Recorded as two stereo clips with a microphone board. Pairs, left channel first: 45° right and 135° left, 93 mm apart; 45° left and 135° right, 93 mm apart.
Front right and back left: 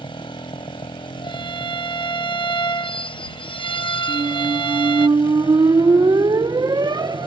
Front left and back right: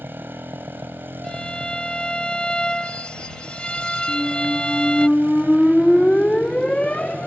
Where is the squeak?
120° left.